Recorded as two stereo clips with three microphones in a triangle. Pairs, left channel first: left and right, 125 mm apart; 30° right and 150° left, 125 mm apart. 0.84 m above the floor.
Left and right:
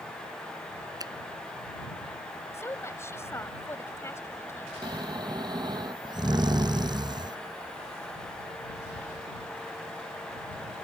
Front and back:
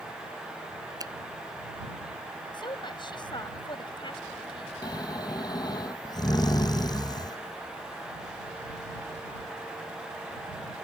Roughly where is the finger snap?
Behind right.